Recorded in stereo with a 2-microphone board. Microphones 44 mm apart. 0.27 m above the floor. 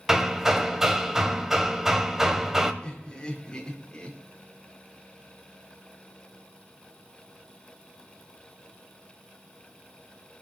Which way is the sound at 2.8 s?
10° left (ahead or behind).